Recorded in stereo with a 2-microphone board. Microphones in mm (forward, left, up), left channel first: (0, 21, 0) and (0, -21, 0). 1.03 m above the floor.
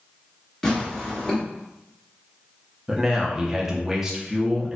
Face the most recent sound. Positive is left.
turn(degrees=-10)  # may be behind; listen again after turning